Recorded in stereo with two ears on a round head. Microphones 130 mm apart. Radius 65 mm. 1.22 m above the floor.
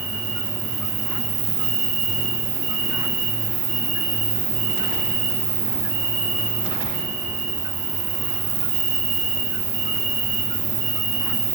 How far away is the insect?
About 9 m.